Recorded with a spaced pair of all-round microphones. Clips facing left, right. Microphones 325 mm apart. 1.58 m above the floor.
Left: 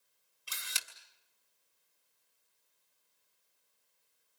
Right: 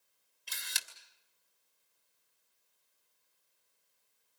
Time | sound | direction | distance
0.5 | a camera shutter | 10° left (ahead or behind) | 2.5 m